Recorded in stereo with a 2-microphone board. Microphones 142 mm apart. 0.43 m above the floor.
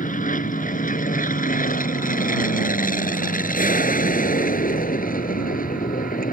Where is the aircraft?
70° left (ahead or behind); by 6.3 s 80° left.